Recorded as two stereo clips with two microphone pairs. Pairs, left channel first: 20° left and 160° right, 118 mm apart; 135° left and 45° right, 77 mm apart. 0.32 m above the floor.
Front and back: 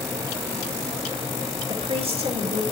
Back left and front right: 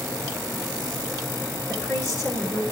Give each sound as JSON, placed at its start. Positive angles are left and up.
{"t": 1.7, "sound": "a woman speaking", "azimuth_deg": 180, "distance_m": 3.0}